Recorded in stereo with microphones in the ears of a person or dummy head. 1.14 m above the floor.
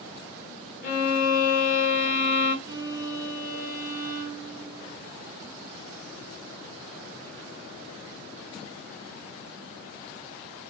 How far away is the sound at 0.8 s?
About 0.8 m.